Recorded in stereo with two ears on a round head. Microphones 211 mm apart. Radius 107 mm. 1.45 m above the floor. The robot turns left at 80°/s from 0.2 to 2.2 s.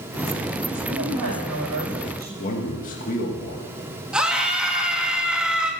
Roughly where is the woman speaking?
Ahead right.